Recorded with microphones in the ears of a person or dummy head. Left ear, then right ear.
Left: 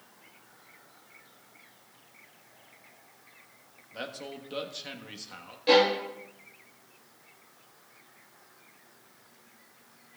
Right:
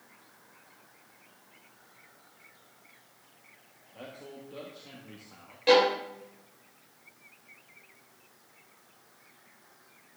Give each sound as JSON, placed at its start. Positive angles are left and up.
{"t": 3.9, "sound": "a man speaking", "side_deg": 55, "distance_m": 1.3}
{"t": 5.7, "sound": "a violin", "side_deg": -30, "distance_m": 3.5}